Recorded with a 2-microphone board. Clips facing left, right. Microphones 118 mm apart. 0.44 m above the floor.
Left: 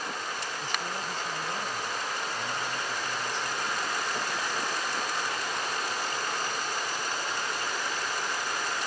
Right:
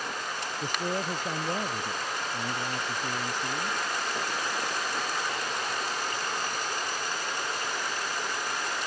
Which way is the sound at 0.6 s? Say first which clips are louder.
Right 7 dB; 45° right (ahead or behind).